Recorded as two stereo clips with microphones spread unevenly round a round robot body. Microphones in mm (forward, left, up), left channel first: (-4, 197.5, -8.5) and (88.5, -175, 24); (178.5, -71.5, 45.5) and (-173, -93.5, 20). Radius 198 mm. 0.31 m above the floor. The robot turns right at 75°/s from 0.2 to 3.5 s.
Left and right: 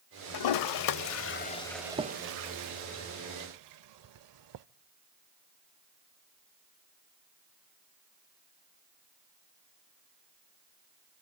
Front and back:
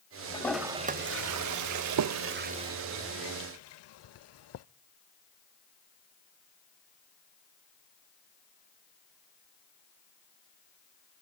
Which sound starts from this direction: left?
A toilet flushing, at 0.3 s.